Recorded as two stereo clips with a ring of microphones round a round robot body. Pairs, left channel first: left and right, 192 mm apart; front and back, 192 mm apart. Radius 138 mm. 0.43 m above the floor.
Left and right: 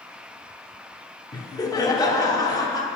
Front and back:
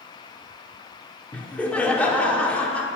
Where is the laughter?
70° left, 1.0 m.